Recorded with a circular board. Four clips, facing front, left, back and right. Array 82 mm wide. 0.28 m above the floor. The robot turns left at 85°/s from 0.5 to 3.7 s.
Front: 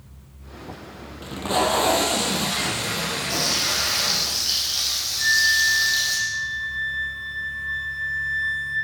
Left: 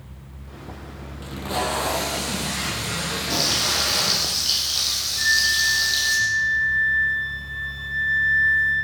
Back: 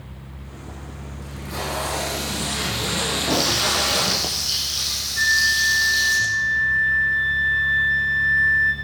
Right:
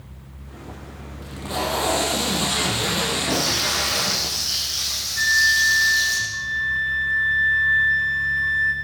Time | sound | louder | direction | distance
1.2 | tape being pulled | left 1 dB, front 9 dB | 30° left | 2.5 m
3.3 | frying | right 2 dB, back 5 dB | 120° left | 7.5 m
5.2 | a flute | right 3 dB, back 1 dB | 145° right | 2.5 m